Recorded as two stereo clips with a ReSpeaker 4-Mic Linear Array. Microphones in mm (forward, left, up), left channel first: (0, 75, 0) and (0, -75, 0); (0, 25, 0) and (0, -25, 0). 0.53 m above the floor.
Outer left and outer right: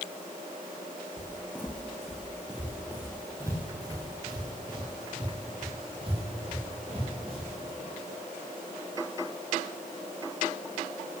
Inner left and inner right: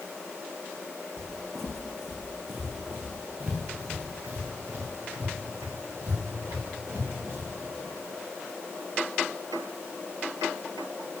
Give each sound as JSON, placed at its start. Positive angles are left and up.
{"t": 1.2, "sound": "footsteps", "side_deg": 20, "distance_m": 1.3}